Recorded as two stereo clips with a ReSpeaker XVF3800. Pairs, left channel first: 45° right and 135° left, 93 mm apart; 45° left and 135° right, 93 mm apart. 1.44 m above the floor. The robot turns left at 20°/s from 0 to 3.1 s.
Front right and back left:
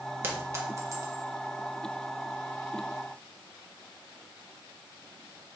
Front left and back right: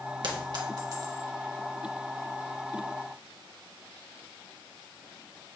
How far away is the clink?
About 1.4 m.